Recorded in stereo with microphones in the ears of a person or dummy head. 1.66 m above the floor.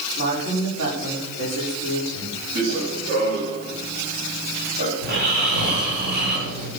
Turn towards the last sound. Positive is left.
turn(degrees=-55)  # may be behind; listen again after turning